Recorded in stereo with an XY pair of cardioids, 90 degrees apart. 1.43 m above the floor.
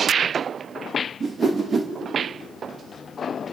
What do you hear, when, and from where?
1.2 s a whoosh: 40° right, 1.6 m